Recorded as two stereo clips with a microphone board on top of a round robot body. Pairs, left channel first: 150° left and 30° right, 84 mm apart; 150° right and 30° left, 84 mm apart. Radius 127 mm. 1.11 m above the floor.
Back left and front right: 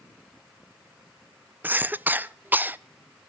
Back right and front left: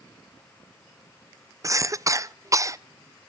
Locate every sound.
1.6 s a cough: 25° left, 0.8 m